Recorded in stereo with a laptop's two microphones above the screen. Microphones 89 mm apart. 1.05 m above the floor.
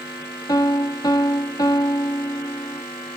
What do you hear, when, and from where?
0.5 s a piano: 45° left (ahead or behind)